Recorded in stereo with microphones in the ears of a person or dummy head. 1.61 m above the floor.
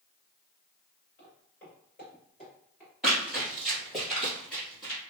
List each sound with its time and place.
1.2 s footsteps: 10° left (ahead or behind), 1.6 m; by 2.9 s 15° right (ahead or behind), 1.7 m
3.0 s running footsteps: 5° right (ahead or behind), 1.7 m; by 5.0 s 10° left (ahead or behind), 2.5 m